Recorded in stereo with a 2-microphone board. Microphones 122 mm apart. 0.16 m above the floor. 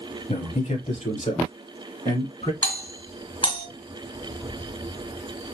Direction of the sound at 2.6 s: 45° left (ahead or behind).